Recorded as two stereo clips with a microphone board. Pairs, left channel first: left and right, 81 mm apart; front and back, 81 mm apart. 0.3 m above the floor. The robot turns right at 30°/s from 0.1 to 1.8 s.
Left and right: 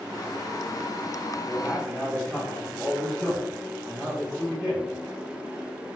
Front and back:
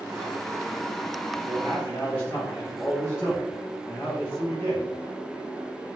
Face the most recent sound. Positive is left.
turn(degrees=35)